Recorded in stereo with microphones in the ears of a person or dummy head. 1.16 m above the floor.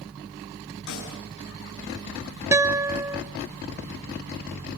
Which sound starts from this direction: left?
A snare drum, at 0.9 s.